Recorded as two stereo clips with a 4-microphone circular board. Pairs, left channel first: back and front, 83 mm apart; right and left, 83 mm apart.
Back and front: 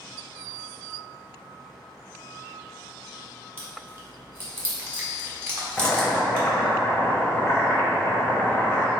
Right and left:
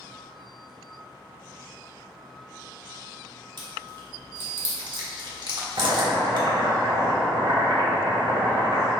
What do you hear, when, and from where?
3.6 s chewing: 60° left, 1.2 m
5.8 s boiling: 110° left, 0.9 m